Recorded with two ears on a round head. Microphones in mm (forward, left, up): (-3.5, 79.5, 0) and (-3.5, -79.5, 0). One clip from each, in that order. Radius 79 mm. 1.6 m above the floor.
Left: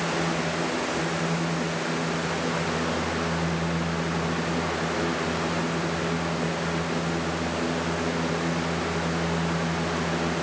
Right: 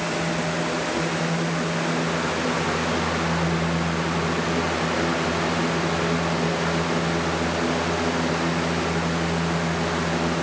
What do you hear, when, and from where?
Only background noise.